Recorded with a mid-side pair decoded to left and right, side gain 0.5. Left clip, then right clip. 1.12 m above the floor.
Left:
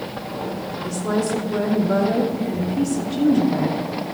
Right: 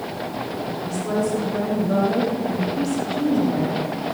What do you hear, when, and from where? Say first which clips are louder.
0.8 s a woman speaking: left 1 dB; 25° left, 2.5 m